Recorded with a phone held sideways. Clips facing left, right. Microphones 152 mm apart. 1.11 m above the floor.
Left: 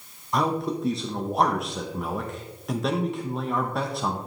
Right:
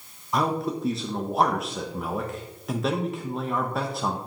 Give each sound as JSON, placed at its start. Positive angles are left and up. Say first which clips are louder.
{"t": 0.3, "sound": "a man speaking", "louder": "even", "side_deg": 0, "distance_m": 0.7}